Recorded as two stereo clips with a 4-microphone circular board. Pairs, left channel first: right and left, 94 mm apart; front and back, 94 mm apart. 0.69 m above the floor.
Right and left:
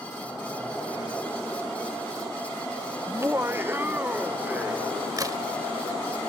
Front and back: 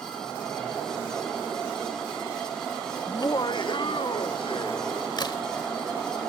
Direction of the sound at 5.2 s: 40° left.